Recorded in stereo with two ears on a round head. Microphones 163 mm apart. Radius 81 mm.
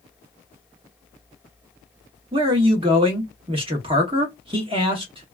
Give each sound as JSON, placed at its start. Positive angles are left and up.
{"t": 2.3, "sound": "a man speaking", "side_deg": -30, "distance_m": 0.9}